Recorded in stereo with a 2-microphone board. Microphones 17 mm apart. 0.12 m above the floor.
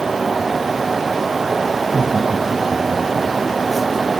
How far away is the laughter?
About 6.5 m.